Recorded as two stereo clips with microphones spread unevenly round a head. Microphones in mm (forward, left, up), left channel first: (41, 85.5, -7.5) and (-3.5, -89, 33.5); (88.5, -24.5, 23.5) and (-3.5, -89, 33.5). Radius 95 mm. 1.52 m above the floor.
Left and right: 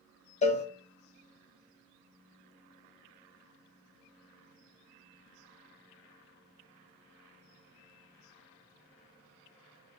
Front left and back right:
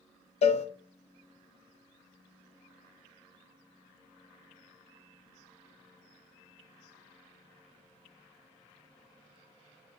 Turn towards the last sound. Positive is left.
turn(degrees=15)